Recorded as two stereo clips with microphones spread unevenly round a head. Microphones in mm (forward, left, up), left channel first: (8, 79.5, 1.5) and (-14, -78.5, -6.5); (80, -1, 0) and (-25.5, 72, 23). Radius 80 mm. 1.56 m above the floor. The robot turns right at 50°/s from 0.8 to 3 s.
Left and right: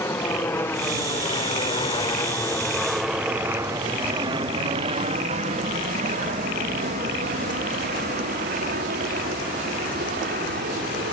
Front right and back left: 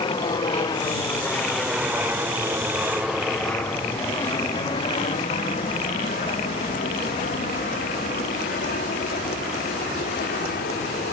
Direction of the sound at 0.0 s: 10° left.